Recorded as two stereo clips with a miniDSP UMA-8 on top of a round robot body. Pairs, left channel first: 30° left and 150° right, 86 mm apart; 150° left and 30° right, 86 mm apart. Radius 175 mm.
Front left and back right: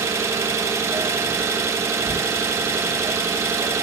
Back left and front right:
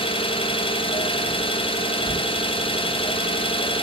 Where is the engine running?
150° left, 1.3 m.